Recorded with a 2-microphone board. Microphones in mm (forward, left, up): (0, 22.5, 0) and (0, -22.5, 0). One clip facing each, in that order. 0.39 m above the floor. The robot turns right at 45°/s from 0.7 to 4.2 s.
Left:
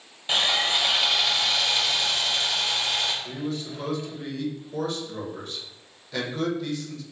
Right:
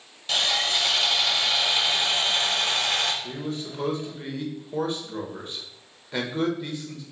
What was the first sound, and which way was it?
Sawing, 155° left.